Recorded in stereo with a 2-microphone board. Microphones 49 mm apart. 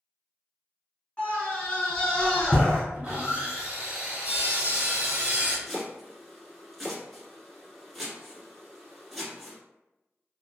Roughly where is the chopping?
Centre.